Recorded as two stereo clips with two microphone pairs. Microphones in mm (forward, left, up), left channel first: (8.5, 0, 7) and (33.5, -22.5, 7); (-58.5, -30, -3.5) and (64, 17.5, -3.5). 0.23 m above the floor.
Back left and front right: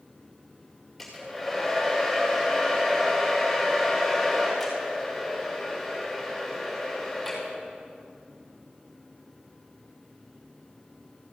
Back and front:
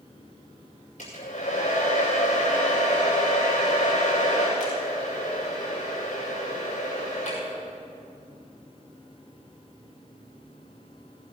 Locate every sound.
1.0 s a hair dryer: 125° right, 6 m